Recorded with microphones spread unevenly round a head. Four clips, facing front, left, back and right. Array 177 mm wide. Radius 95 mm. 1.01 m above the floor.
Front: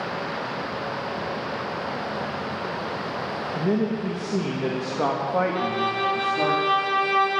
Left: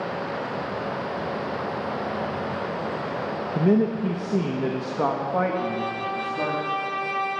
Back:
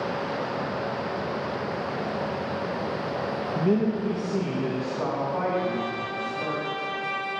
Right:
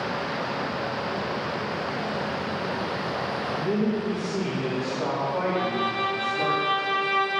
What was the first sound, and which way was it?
A man speaking, 100° left.